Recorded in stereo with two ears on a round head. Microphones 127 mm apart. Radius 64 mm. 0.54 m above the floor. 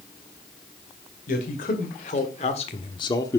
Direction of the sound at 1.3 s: 65° left (ahead or behind).